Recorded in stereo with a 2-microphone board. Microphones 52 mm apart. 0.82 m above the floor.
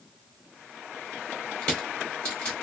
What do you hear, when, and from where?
1.6 s crushing: 15° left (ahead or behind), 2.5 m